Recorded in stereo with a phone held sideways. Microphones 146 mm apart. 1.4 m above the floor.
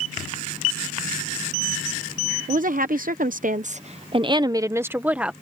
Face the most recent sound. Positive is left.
turn(degrees=-5)  # may be behind; listen again after turning